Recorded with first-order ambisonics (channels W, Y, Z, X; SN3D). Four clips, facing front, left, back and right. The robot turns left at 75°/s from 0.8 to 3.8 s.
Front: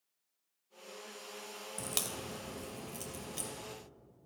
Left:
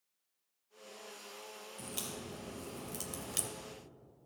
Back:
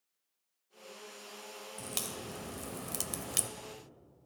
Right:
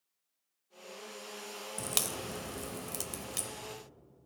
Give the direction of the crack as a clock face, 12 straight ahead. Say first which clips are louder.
Right 8 dB, front 2 dB; 2 o'clock.